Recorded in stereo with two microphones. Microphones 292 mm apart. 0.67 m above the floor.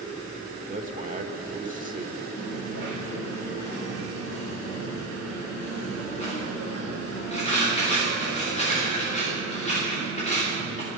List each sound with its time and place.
0.7 s a man speaking: 25° right (ahead or behind), 1.5 m
2.4 s a dropped coin: 20° left (ahead or behind), 8 m